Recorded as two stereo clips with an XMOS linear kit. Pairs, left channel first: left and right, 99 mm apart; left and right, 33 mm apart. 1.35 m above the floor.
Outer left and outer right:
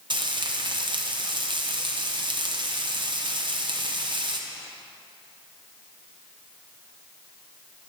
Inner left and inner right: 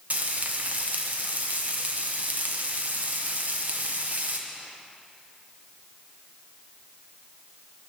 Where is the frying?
50° right (ahead or behind), 0.8 m.